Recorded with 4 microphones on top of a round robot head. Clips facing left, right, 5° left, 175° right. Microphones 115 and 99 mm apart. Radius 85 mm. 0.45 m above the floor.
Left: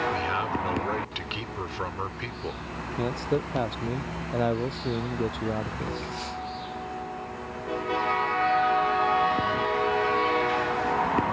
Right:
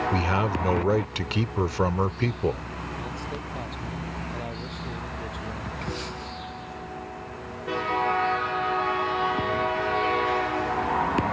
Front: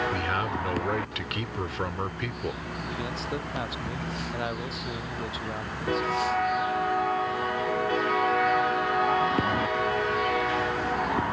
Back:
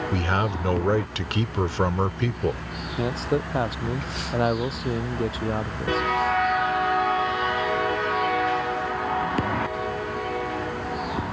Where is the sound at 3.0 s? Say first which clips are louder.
Left 7 dB, back 11 dB; 135° left.